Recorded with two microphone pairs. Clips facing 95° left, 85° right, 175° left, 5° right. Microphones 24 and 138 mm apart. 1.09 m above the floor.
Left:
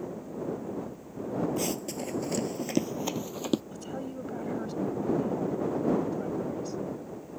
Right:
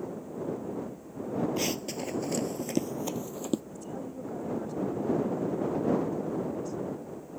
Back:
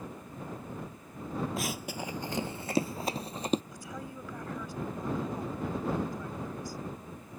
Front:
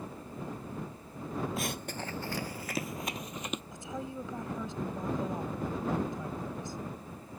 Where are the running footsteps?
95° right; by 3.6 s 130° left.